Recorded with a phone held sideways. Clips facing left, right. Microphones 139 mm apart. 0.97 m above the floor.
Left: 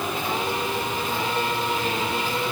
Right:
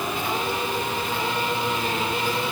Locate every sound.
Only background noise.